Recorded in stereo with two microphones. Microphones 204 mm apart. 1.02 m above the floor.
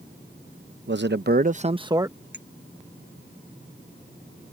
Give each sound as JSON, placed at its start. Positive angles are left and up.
{"t": 0.9, "sound": "a man speaking", "side_deg": -65}
{"t": 2.3, "sound": "a clink", "side_deg": -60}